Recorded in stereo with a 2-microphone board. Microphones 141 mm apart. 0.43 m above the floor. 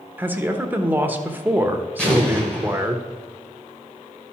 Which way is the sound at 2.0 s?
5° left (ahead or behind).